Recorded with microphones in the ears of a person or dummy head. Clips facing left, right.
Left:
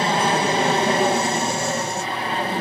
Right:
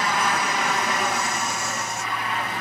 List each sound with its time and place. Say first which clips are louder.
0.0 s an aircraft: left 5 dB; 25° left (ahead or behind)